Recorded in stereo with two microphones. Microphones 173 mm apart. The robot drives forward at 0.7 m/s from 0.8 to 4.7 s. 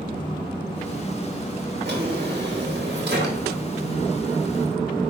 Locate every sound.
1.9 s a drawer: 70° right (ahead or behind), 2.5 m; by 3.6 s 80° right, 2.5 m